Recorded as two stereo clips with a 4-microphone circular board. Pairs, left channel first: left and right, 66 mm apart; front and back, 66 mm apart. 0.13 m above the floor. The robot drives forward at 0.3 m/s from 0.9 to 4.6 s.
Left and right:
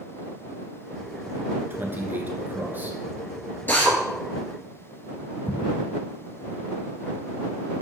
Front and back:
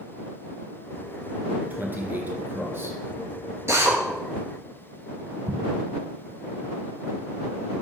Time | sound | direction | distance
1.7 | a man speaking | 130° right | 1.6 m
3.7 | a drill | 145° left | 2.0 m
5.5 | an explosion | 150° left | 0.7 m